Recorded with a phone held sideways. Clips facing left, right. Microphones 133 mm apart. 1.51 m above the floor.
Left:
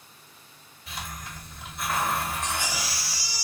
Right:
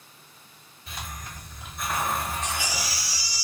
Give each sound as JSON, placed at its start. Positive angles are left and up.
{"t": 0.9, "sound": "a hiss", "side_deg": 5, "distance_m": 1.9}
{"t": 2.4, "sound": "a baby crying", "side_deg": 50, "distance_m": 1.5}